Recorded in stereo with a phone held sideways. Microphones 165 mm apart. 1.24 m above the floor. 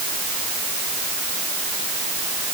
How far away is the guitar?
No guitar in this recording.